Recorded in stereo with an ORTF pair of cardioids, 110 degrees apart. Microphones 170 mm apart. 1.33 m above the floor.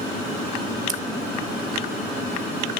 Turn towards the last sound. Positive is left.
turn(degrees=-45)